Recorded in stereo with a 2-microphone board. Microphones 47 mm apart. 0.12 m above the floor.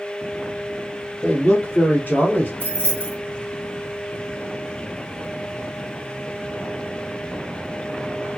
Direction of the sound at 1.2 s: 25° left (ahead or behind).